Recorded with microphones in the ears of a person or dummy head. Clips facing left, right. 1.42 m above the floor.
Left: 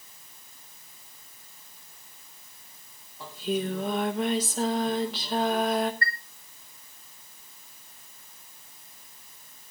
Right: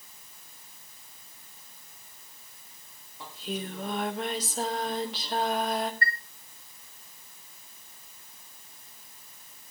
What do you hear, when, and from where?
3.2 s singing: centre (ahead or behind), 0.8 m
6.0 s a chime: 20° right (ahead or behind), 0.6 m